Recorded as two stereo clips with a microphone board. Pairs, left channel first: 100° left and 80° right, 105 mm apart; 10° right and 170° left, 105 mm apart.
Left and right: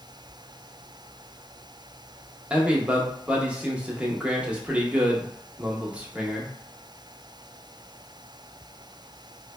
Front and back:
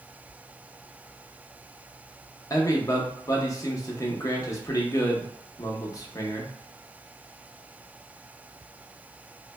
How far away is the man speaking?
About 0.7 m.